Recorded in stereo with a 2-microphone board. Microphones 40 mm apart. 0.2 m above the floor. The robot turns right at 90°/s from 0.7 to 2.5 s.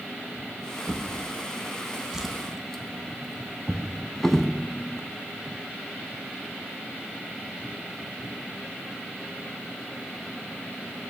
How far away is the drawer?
About 0.5 m.